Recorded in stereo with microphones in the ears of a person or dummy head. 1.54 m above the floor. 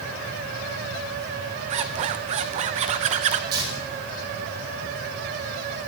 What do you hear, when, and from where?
1.7 s a zipper: 35° right (ahead or behind), 0.8 m
3.5 s tearing paper: 25° right (ahead or behind), 4.5 m